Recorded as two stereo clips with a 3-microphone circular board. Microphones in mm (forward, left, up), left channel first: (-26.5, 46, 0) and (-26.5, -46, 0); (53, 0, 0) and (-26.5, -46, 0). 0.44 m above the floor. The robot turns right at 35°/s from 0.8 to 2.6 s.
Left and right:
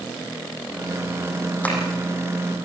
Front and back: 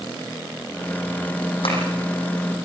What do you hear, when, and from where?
1.6 s tapping: 15° left, 7 m; by 1.8 s 20° left, 7 m